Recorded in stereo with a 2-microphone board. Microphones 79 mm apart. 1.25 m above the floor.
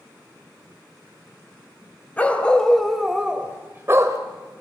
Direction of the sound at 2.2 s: 20° left (ahead or behind).